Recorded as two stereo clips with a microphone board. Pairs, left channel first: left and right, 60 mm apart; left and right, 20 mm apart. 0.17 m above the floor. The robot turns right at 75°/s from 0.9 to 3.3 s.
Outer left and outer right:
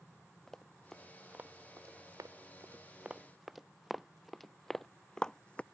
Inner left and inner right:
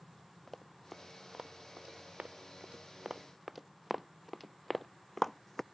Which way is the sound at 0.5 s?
10° left (ahead or behind).